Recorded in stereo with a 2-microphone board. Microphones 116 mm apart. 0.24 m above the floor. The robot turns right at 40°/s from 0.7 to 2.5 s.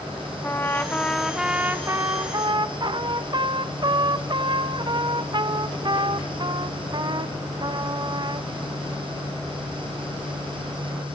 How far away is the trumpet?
About 0.6 m.